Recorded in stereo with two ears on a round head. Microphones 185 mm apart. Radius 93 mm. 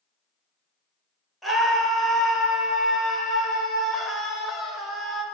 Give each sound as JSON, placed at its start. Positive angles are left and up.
{"t": 1.4, "sound": "a scream", "side_deg": 0, "distance_m": 3.5}